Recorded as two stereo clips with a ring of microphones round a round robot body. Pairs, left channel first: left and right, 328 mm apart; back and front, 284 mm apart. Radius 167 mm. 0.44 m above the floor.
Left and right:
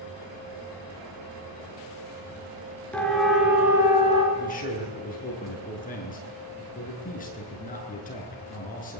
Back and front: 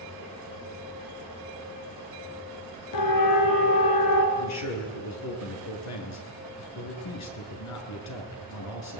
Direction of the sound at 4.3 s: 155° left.